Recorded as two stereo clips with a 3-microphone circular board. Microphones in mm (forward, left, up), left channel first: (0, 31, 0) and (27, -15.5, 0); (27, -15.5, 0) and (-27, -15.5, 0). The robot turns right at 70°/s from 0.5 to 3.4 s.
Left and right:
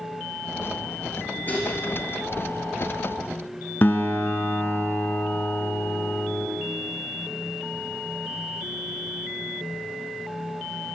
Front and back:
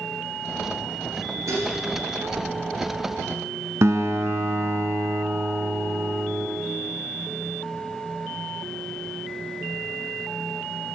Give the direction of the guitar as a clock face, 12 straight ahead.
7 o'clock.